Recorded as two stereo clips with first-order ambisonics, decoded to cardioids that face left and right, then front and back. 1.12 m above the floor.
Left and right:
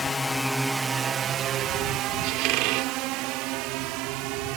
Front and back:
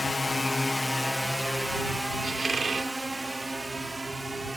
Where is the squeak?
105° right.